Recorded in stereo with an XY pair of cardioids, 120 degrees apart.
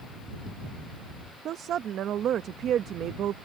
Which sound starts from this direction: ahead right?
A woman speaking, at 1.4 s.